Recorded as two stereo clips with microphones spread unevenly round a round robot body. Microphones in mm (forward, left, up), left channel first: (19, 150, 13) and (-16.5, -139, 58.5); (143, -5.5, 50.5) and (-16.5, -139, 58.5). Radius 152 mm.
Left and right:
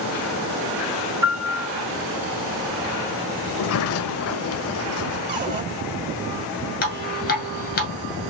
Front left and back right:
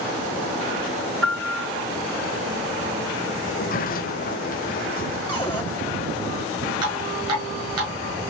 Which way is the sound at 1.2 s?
135° right.